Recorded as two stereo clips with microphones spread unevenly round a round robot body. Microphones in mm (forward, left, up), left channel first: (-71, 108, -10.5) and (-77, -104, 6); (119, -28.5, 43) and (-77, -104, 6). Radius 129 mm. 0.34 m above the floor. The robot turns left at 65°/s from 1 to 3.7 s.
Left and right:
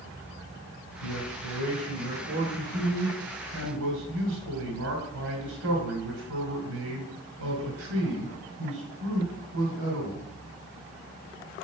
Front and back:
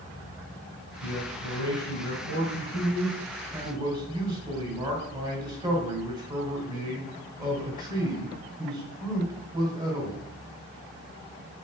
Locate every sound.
1.0 s a man speaking: 85° left, 4 m; by 10.2 s 90° right, 4 m